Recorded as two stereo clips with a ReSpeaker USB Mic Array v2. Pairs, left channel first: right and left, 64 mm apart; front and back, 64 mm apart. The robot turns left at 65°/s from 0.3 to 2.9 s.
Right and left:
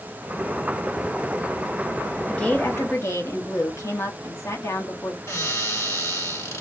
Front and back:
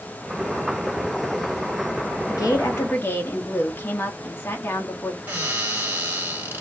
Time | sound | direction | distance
2.3 | a woman speaking | 15° right | 0.8 m
5.3 | a cupboard door | 120° right | 1.4 m